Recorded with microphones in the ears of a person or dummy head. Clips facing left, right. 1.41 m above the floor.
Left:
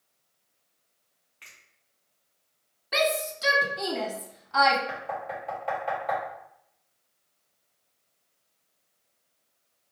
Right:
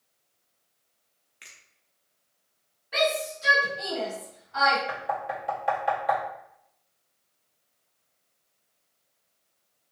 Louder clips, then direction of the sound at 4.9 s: Right 3 dB; 10° right (ahead or behind).